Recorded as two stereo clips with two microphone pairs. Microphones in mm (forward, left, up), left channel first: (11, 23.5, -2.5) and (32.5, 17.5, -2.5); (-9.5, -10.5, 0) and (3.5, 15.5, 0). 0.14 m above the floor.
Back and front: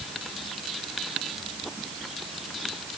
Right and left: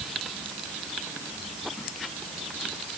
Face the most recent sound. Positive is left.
No sound to turn to.